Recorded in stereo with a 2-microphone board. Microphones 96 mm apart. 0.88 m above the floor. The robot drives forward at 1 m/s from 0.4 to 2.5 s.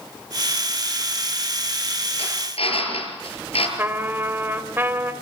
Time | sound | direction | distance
2.2 | a drill | 85° left | 7 m
3.8 | a trumpet | 25° right (ahead or behind) | 2.5 m